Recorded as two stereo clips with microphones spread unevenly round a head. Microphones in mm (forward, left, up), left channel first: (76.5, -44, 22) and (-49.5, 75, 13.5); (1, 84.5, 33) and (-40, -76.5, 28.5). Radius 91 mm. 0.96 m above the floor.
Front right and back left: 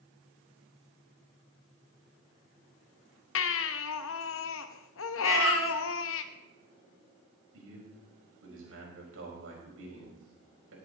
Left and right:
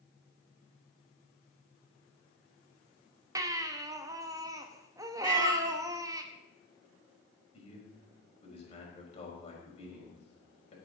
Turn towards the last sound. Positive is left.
turn(degrees=130)